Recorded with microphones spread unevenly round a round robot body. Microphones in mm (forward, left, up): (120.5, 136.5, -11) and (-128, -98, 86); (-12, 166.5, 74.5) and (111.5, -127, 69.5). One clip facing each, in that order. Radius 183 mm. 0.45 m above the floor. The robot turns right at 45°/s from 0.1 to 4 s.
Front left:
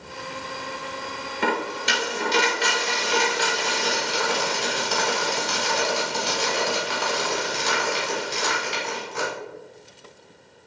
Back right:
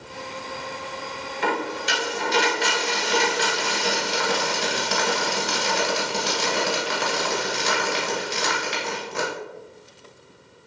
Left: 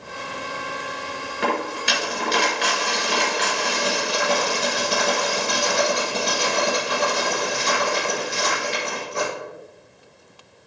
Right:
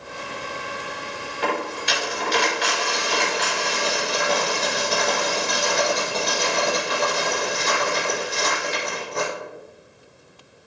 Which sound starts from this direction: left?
A dropped coin, at 1.4 s.